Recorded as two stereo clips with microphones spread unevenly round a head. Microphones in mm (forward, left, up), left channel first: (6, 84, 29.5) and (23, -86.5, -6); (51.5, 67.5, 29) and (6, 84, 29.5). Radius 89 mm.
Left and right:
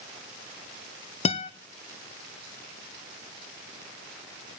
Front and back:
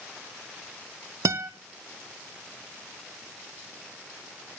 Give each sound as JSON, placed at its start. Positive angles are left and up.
{"t": 1.2, "sound": "a guitar", "azimuth_deg": 145, "distance_m": 0.8}